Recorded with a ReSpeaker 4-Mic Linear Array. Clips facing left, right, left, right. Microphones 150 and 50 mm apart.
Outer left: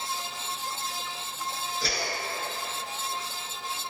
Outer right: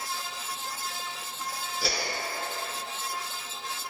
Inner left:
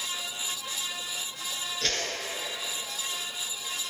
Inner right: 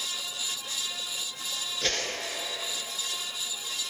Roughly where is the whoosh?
Centre.